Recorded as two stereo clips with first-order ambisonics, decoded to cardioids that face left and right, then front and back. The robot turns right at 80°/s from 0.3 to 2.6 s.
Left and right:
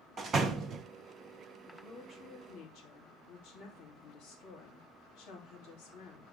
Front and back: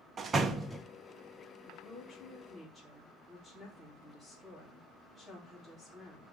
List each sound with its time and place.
0.2 s a door slam: 130° right, 0.8 m; by 0.8 s 85° right, 0.8 m
1.7 s a woman speaking: 15° left, 3 m; by 6.3 s 90° left, 3 m